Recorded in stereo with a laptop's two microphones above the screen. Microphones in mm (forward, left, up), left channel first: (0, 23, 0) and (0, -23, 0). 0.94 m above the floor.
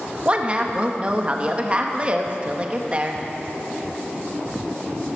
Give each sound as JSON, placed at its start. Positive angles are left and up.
{"t": 0.2, "sound": "a woman speaking", "side_deg": -25, "distance_m": 0.8}